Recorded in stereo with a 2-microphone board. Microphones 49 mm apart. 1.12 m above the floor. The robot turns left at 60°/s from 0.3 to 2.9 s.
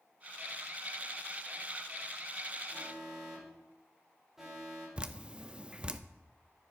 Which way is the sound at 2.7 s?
Centre (ahead or behind).